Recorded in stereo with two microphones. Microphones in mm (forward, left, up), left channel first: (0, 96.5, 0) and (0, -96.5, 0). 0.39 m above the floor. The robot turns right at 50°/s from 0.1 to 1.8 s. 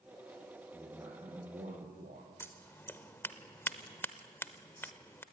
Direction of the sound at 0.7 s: 175° right.